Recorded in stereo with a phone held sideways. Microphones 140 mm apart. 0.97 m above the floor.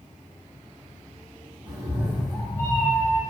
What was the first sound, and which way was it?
A cat meowing, 30° right (ahead or behind).